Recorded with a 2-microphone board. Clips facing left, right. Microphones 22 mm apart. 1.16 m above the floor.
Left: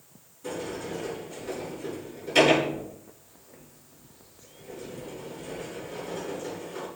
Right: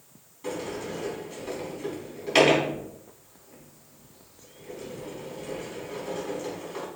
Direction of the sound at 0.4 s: 55° right (ahead or behind).